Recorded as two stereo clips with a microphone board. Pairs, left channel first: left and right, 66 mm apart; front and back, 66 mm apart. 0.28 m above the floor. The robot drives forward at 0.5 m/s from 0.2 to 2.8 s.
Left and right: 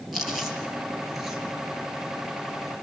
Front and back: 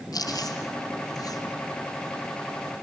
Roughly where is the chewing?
Ahead.